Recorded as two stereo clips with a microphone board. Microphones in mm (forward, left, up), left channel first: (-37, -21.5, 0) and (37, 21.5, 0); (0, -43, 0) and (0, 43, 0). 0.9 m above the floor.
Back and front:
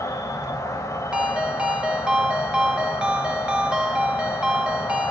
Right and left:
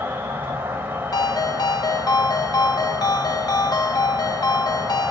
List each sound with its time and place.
0.0 s an insect: 155° left, 0.7 m
1.1 s a ringtone: 50° right, 0.5 m